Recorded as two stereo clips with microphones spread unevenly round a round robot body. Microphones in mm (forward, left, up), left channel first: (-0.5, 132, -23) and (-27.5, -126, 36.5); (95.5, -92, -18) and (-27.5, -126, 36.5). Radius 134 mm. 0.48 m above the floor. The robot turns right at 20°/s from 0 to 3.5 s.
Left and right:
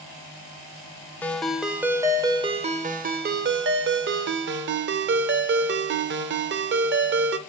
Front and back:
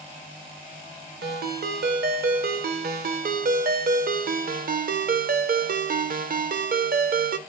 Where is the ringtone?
165° left, 0.6 m; by 7.4 s 150° right, 0.6 m.